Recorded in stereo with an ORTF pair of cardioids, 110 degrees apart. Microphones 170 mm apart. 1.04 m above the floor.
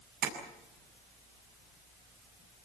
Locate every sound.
0.2 s tapping: 65° right, 7 m